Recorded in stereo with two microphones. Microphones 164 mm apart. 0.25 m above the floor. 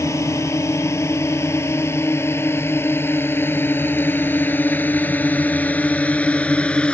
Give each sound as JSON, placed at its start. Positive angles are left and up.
{"t": 0.0, "sound": "a drone", "side_deg": 20}